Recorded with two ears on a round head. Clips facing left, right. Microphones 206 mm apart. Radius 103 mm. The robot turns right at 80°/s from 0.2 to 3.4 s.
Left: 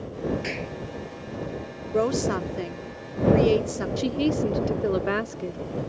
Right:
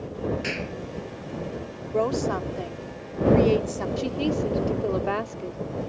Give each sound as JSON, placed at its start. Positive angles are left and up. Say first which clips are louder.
{"t": 0.4, "sound": "a clap", "louder": "right 1 dB", "side_deg": -5}
{"t": 1.9, "sound": "a woman speaking", "louder": "left 1 dB", "azimuth_deg": 30}
{"t": 4.0, "sound": "a woman speaking", "louder": "left 3 dB", "side_deg": 25}